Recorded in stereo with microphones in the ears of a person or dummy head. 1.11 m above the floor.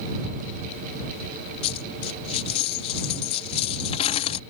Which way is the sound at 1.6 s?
35° left (ahead or behind).